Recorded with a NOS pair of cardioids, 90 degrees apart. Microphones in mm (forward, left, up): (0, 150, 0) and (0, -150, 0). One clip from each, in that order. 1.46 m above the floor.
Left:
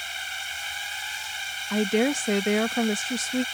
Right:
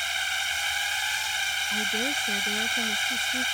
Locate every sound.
0.0 s a drone: 40° right
1.7 s a woman speaking: 70° left